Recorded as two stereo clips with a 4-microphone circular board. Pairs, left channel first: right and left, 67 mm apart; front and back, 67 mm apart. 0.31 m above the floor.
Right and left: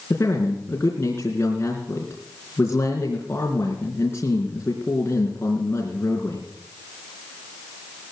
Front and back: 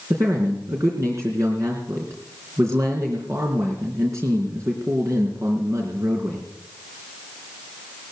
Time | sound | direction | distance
0.1 | a man speaking | 140° right | 3.5 m